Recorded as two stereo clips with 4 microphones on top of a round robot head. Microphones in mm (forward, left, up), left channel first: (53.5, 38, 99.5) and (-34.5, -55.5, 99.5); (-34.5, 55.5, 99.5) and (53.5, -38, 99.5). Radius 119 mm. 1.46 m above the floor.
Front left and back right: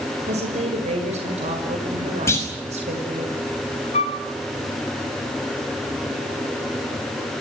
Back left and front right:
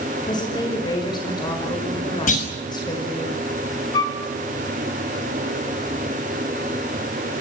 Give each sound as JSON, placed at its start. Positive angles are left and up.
{"t": 0.2, "sound": "a woman speaking", "azimuth_deg": -170, "distance_m": 5.5}
{"t": 2.3, "sound": "a clunk", "azimuth_deg": 115, "distance_m": 5.5}
{"t": 3.9, "sound": "a flute", "azimuth_deg": 85, "distance_m": 1.1}